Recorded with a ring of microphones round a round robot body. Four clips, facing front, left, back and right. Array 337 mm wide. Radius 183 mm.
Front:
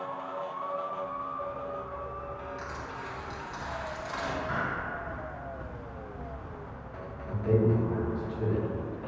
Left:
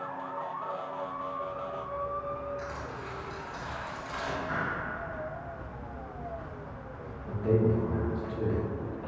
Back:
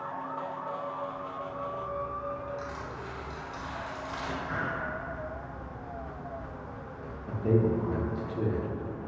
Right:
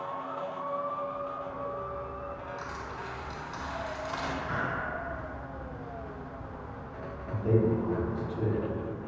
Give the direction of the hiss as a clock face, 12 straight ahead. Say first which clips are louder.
Even, front 1 dB; 1 o'clock.